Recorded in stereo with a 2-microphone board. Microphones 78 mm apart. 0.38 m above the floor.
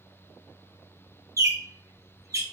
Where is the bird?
40° right (ahead or behind), 0.5 m.